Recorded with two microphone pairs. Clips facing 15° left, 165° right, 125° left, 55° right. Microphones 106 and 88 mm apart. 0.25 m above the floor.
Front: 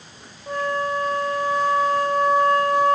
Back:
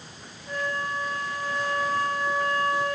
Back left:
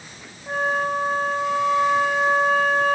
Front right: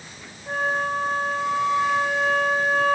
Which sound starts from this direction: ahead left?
A flute, at 0.5 s.